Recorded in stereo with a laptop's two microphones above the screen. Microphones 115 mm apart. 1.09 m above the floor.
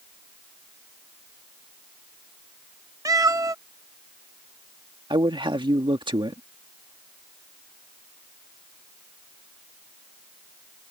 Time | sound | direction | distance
3.0 | a cat meowing | 30° right (ahead or behind) | ?
5.1 | a man speaking | 45° right (ahead or behind) | ?